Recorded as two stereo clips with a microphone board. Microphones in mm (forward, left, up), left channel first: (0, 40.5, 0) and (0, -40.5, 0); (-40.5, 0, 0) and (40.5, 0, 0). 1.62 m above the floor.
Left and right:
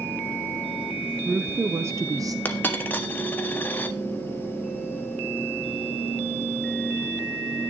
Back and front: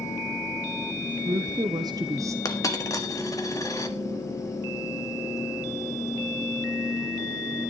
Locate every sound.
1.0 s a woman speaking: 20° right, 1.1 m; by 2.4 s 50° right, 0.5 m
2.5 s a dropped coin: 150° left, 1.5 m